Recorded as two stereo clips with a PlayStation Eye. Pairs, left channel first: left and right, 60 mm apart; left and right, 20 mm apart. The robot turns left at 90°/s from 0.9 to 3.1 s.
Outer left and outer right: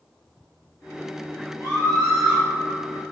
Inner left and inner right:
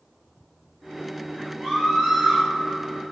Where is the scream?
60° right, 3 m; by 2.4 s 135° right, 3 m.